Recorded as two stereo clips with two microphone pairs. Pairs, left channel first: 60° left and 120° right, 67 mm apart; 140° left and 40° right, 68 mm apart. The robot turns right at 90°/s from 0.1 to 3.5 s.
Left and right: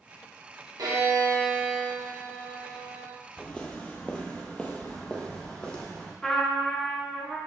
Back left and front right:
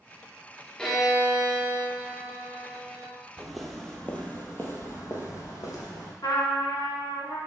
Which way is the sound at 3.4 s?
20° left.